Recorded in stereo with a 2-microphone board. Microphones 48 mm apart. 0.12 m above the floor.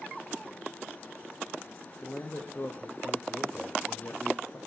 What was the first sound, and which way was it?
A man speaking, 30° left (ahead or behind).